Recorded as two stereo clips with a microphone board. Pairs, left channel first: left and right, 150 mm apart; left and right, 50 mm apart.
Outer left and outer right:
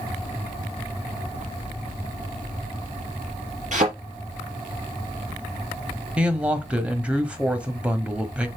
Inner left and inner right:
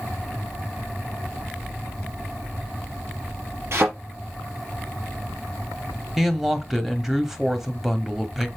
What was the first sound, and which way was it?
A thud, 50° right (ahead or behind).